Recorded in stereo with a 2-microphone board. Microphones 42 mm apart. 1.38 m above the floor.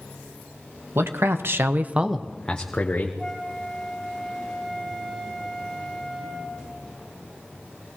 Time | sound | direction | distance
0.9 | a man speaking | 70° right (ahead or behind) | 1.4 m
3.2 | a flute | centre (ahead or behind) | 4 m